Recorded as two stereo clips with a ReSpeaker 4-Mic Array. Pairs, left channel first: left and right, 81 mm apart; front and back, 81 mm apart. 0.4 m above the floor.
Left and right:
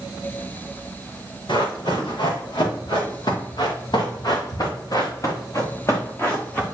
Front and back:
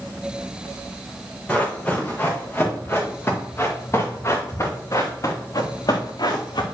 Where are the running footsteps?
75° left, 4.5 m; by 6.6 s 20° left, 2 m.